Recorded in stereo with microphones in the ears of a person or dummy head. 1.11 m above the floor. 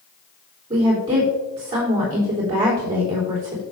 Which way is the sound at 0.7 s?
25° right (ahead or behind).